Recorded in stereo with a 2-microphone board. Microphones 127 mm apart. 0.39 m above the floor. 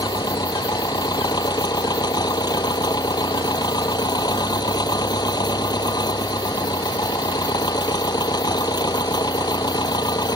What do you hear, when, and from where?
0.0 s an engine running: 35° left (ahead or behind)